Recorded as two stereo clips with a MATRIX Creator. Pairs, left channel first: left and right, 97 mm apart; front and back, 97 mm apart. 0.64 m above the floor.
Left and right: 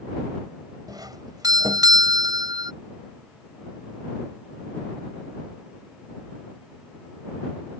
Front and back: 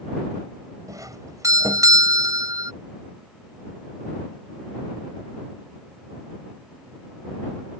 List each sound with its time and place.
0.9 s a doorbell: 130° right